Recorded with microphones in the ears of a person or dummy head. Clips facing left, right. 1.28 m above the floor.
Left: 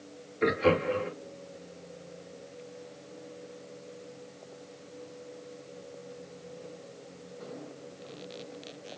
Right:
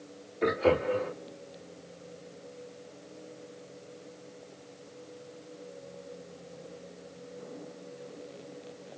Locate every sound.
0.4 s laughter: 10° left (ahead or behind), 2.5 m